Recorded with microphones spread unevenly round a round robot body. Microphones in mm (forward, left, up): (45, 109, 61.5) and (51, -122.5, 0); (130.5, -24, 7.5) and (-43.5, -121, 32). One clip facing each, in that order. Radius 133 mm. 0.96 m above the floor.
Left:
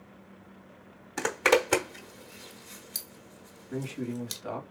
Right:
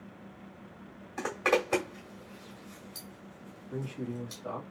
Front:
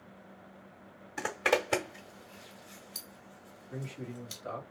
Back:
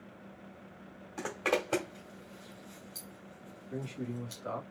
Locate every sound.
1.2 s a zipper: 115° left, 1.0 m
3.7 s a man speaking: 160° left, 1.7 m